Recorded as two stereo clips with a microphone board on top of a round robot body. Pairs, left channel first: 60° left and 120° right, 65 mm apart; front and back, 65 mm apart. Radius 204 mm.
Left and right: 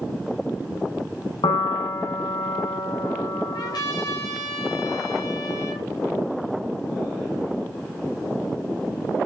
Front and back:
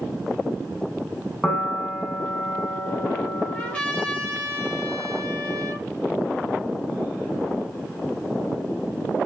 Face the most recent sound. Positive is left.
turn(degrees=70)